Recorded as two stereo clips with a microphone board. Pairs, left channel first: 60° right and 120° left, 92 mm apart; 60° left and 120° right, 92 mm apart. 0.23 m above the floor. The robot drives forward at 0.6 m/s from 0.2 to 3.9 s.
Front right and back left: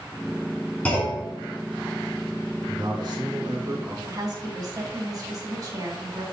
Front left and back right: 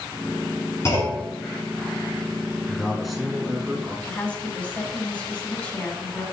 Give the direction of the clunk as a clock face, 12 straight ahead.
12 o'clock.